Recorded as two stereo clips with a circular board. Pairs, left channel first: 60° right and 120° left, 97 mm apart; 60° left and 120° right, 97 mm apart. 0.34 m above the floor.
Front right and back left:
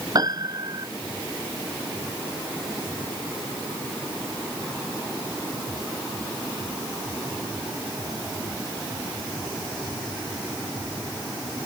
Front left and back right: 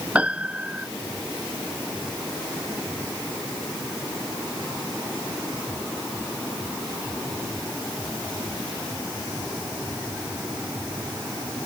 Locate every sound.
0.1 s a piano: 165° left